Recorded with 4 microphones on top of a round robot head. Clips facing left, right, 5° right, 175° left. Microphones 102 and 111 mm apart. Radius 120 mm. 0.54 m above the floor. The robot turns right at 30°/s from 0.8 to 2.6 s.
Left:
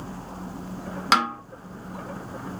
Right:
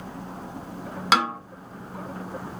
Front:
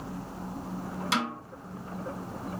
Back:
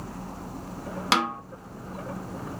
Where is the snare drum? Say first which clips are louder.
Even, back 6 dB; straight behind, 1.4 m; by 1.4 s 170° right, 1.4 m.